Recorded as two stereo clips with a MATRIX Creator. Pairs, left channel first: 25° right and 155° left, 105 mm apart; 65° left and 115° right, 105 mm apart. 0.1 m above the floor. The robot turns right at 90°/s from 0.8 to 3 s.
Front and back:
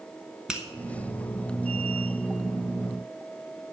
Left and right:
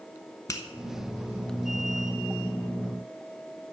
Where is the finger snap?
80° left, 1.1 m.